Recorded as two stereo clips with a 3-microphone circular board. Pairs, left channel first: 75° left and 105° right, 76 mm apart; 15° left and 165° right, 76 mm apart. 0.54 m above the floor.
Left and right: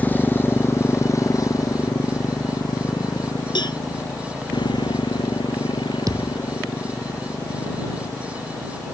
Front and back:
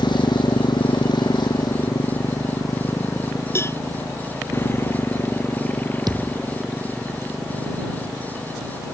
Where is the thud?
140° right.